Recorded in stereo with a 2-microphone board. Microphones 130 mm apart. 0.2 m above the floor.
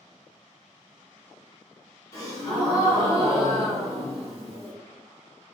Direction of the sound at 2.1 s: 30° left (ahead or behind).